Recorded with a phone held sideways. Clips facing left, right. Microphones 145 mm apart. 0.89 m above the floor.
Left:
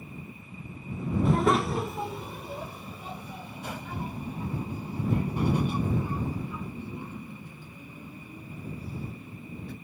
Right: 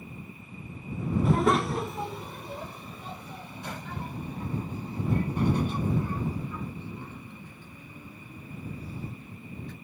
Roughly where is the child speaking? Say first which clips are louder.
Even; centre.